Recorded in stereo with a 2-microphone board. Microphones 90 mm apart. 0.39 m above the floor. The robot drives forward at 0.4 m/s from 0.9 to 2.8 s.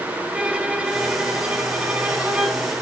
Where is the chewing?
No chewing in this recording.